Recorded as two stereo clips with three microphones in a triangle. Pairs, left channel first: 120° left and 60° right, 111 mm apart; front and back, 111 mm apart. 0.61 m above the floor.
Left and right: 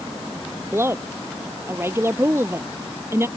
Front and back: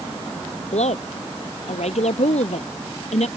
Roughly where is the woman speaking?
Ahead.